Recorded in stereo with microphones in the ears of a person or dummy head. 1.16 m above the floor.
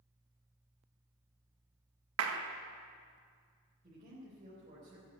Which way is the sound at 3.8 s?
30° right (ahead or behind).